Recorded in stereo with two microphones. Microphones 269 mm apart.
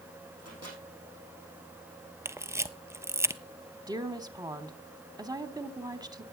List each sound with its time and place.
0.4 s a microwave: 70° right (ahead or behind), 6.5 m
2.2 s a camera shutter: 10° right (ahead or behind), 0.6 m
3.9 s a woman speaking: 15° right (ahead or behind), 1.1 m